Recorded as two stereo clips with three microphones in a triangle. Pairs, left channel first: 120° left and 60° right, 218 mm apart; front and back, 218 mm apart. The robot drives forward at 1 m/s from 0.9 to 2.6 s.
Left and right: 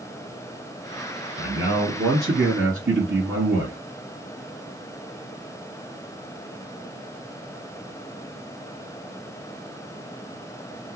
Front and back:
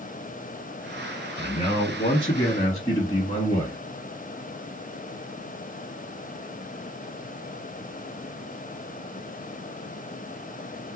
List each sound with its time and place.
1.4 s a man speaking: 50° right, 3.5 m; by 3.8 s 70° right, 3 m